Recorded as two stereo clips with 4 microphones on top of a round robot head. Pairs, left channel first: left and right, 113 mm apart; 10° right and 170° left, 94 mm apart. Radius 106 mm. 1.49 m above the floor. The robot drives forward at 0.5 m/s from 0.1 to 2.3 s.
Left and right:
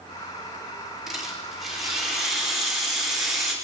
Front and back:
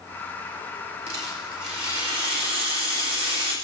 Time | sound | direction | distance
1.1 | a rattle | 175° right | 4.5 m